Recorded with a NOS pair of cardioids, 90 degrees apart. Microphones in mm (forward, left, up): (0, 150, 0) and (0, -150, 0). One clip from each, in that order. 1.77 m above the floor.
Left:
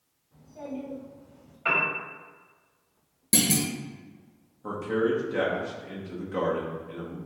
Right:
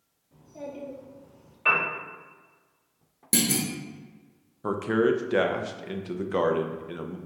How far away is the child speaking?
About 1.8 m.